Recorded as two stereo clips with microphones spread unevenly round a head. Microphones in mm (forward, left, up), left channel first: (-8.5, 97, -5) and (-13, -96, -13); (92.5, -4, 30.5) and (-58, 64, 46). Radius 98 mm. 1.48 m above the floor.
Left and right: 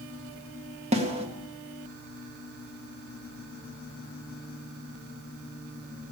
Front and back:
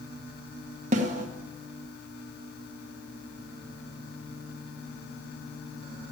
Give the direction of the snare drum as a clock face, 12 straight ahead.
5 o'clock.